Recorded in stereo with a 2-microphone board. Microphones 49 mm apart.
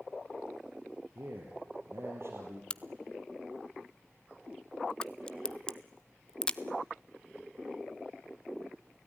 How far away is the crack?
About 0.6 m.